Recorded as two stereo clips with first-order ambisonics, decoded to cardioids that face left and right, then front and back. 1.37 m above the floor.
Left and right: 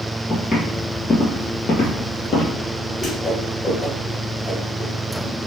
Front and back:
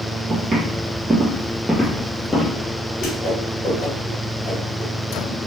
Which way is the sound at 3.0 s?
15° left.